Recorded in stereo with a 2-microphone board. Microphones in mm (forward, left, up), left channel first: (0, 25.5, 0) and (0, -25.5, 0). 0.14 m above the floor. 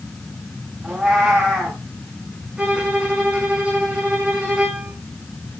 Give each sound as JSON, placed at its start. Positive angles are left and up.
{"t": 0.8, "sound": "a cat meowing", "side_deg": -15, "distance_m": 6.5}
{"t": 2.6, "sound": "a violin", "side_deg": -20, "distance_m": 4.5}